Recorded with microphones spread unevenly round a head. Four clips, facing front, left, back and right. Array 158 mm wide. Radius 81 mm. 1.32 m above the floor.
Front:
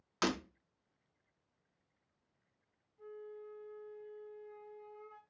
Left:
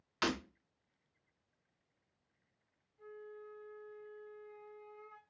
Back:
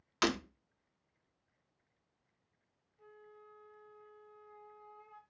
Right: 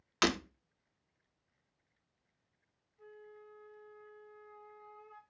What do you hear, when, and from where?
0.2 s breaking glass: 170° right, 0.6 m
3.0 s a flute: 10° left, 1.7 m